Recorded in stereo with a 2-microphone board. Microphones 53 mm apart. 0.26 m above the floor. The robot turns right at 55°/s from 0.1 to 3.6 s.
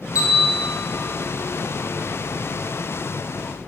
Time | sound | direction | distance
0.1 | a bell | 25° right (ahead or behind) | 2 m